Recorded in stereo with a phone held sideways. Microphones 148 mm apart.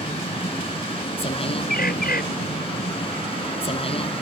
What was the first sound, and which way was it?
A vehicle, 40° left (ahead or behind).